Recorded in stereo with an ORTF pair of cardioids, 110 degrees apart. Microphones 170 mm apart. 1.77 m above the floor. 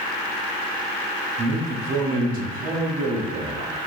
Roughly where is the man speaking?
Ahead right.